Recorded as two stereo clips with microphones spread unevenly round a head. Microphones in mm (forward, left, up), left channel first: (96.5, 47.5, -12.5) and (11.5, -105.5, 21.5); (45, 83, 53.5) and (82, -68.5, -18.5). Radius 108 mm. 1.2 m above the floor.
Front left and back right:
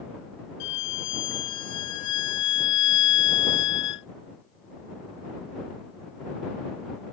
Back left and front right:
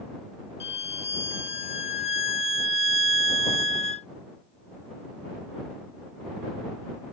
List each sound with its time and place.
0.6 s a violin: 55° left